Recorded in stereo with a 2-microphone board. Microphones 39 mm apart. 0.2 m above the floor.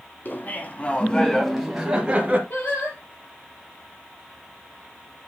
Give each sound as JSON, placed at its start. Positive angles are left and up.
{"t": 0.2, "sound": "laughter", "side_deg": 50, "distance_m": 1.8}
{"t": 2.5, "sound": "singing", "side_deg": 50, "distance_m": 3.5}